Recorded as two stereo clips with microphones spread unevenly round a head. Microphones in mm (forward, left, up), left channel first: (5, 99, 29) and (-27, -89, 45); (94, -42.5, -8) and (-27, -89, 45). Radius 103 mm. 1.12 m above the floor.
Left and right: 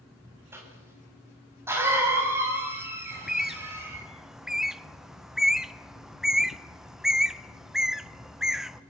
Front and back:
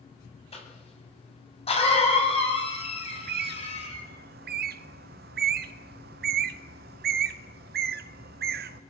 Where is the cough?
20° right, 8.5 m.